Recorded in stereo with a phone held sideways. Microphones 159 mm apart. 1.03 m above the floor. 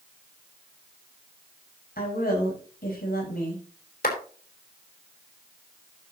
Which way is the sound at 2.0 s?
70° left (ahead or behind).